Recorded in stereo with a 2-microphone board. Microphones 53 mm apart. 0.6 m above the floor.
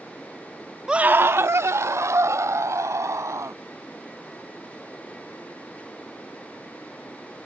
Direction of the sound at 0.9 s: 15° right (ahead or behind).